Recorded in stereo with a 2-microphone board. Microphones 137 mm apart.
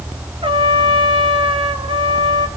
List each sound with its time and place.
0.4 s a trumpet: 45° right (ahead or behind), 1.0 m